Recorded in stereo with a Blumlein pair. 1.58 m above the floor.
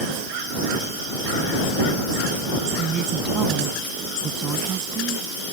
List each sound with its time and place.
2.8 s a woman speaking: 25° right